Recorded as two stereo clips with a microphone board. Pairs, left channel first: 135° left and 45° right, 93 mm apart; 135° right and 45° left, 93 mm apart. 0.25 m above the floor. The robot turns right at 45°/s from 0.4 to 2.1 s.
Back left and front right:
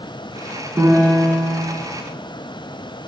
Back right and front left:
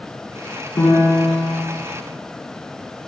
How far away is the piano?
About 1.5 m.